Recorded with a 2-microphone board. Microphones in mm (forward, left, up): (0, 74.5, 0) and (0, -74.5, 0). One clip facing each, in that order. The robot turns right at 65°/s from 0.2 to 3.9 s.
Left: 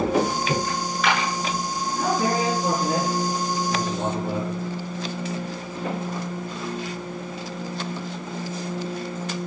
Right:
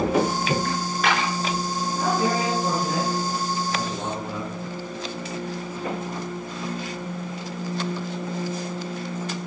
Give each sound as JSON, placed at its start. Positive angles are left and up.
{"t": 0.7, "sound": "a dropped coin", "side_deg": -75, "distance_m": 6.5}
{"t": 2.0, "sound": "a man speaking", "azimuth_deg": -15, "distance_m": 6.5}